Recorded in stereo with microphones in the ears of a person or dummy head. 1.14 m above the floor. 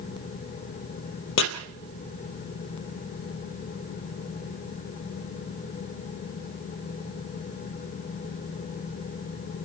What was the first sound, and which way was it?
Chopping, 70° left (ahead or behind).